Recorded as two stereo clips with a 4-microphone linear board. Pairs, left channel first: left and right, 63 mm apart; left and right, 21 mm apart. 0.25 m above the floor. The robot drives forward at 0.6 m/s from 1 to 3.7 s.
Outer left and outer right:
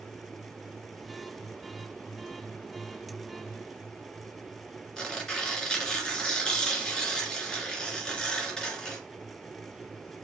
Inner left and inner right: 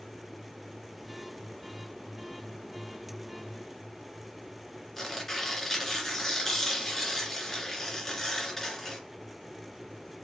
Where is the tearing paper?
10° left (ahead or behind), 2.5 m.